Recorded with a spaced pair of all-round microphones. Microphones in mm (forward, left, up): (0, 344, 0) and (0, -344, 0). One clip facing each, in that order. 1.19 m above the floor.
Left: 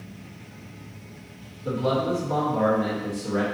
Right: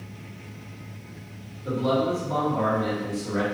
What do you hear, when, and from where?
1.6 s a man speaking: 55° left (ahead or behind), 1.1 m